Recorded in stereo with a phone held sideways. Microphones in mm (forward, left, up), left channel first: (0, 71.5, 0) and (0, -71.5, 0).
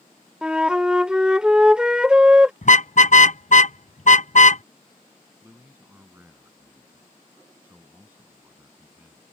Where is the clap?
No clap in this recording.